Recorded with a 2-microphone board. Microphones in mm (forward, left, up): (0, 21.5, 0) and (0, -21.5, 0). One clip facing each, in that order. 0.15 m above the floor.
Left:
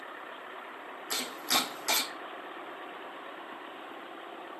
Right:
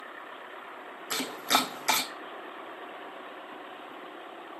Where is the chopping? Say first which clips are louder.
Right 4 dB; 45° right (ahead or behind), 1.2 m.